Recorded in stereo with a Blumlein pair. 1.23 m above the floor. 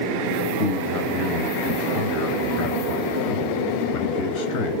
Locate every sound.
0.6 s a man speaking: 35° left, 0.8 m